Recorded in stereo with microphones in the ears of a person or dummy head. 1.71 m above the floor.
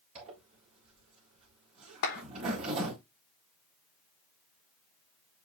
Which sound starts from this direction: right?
A zipper, at 0.1 s.